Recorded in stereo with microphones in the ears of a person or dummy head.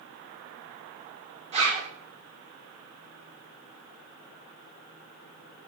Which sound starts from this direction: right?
A zipper, at 1.5 s.